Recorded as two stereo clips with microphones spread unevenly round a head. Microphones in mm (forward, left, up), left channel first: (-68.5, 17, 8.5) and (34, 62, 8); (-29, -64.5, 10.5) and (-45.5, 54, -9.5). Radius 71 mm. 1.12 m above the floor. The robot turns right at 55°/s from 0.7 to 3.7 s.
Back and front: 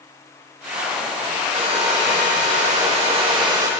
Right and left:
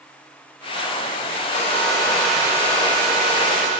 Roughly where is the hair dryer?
Ahead right.